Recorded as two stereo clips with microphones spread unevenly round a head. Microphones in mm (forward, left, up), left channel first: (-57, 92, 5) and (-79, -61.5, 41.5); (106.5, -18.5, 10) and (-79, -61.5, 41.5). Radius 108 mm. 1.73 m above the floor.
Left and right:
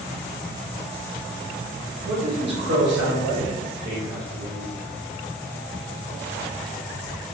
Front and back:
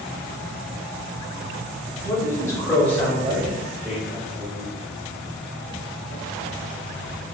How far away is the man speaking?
About 1.7 m.